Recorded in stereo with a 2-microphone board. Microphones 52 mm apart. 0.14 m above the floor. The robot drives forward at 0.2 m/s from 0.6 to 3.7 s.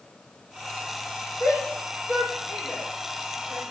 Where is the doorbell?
I don't hear a doorbell.